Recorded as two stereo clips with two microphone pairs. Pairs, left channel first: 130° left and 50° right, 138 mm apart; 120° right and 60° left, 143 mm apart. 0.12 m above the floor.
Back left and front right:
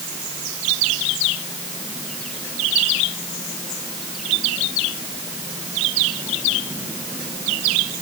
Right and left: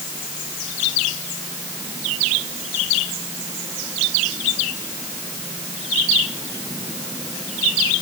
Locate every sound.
Only background noise.